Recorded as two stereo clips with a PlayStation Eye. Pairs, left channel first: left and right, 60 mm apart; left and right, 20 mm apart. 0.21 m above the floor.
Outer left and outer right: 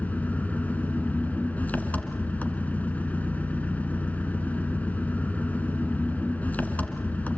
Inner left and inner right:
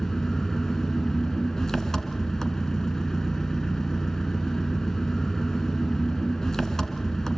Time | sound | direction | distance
0.0 | an engine running | 30° left (ahead or behind) | 1.7 m